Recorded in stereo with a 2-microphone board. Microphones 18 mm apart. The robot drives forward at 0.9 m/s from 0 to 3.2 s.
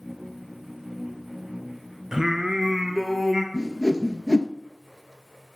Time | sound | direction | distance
2.1 | singing | 30° right (ahead or behind) | 1.1 m
3.5 | a whoosh | 35° left (ahead or behind) | 0.6 m